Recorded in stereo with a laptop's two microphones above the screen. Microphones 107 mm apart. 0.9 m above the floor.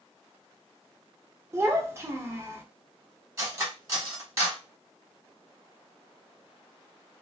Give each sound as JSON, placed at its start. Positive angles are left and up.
{"t": 1.5, "sound": "a child speaking", "side_deg": -25, "distance_m": 0.6}
{"t": 3.4, "sound": "cutlery clinking", "side_deg": -30, "distance_m": 1.2}